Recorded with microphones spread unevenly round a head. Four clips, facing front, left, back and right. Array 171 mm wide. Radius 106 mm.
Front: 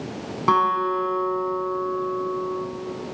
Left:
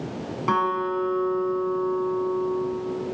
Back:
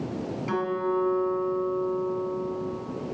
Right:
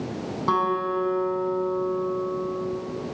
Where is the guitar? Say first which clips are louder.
Even, front 8 dB; 5° left, 6.5 m.